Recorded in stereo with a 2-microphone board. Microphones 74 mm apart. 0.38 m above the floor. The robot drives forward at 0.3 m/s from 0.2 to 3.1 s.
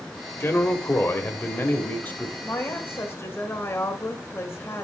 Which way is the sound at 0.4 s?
35° left (ahead or behind).